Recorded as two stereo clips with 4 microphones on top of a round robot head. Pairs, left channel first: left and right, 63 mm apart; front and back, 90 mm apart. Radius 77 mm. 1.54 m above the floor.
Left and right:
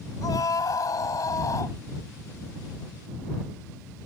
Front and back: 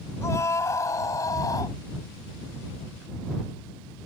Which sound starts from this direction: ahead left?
A scream, at 0.2 s.